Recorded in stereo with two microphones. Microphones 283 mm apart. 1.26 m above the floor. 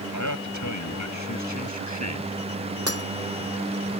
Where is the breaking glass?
55° right (ahead or behind).